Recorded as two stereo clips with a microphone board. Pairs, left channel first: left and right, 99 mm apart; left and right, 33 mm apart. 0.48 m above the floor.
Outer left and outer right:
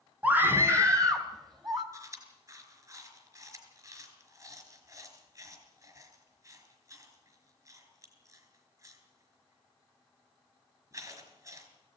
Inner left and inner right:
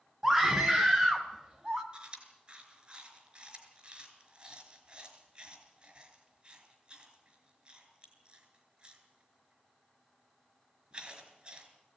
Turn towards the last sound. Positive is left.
turn(degrees=-35)  # may be behind; listen again after turning